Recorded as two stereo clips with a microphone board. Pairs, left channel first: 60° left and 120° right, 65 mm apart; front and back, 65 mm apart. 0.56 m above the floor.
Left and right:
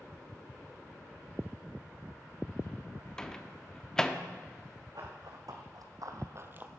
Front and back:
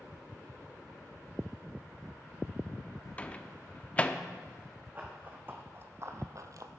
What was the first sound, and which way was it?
A microwave, straight ahead.